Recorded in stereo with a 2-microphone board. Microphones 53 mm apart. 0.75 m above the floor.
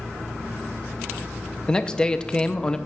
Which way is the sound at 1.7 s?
15° left (ahead or behind).